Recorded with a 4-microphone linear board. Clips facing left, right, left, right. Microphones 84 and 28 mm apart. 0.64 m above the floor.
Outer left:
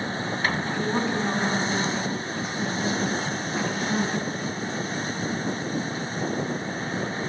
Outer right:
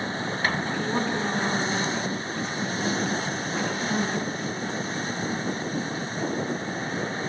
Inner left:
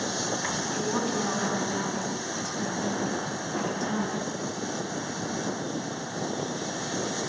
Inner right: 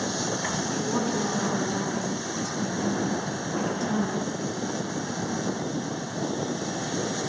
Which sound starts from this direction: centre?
A woman speaking, at 0.7 s.